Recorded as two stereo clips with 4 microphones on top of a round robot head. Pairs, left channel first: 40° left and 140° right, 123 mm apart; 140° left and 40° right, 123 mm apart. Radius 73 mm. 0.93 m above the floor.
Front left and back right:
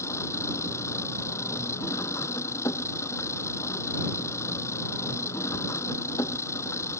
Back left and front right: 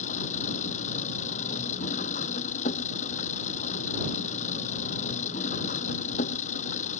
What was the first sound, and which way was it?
An engine running, 110° left.